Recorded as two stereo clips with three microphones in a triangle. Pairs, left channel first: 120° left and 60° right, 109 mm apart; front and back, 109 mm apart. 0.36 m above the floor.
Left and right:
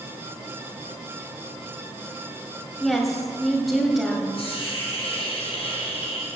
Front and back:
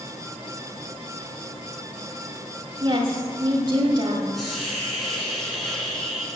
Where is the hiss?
90° left, 4 m.